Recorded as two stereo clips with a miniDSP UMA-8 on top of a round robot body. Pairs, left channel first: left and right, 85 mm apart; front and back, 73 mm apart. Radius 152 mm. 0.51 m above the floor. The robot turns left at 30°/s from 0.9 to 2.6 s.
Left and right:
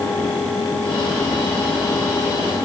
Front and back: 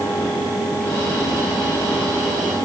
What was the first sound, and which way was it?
Only background noise.